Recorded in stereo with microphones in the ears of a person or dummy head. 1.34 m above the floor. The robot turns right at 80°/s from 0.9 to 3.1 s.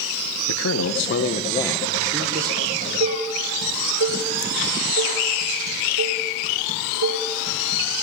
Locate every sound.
0.5 s a man speaking: 100° left, 1.3 m; by 2.6 s 125° right, 1.3 m
2.7 s dishes clattering: 40° right (ahead or behind), 3.5 m; by 7.8 s 75° right (ahead or behind), 3.5 m